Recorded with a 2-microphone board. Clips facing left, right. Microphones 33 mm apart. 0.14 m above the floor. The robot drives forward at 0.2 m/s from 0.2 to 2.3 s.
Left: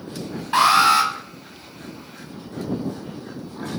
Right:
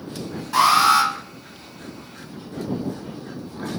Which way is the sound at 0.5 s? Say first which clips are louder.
Even; 30° left (ahead or behind).